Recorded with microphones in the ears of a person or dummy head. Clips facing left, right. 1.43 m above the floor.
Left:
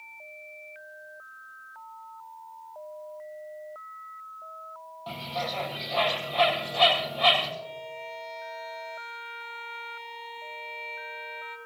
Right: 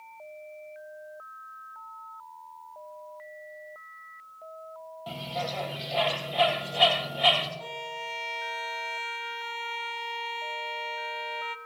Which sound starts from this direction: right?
A violin, at 7.6 s.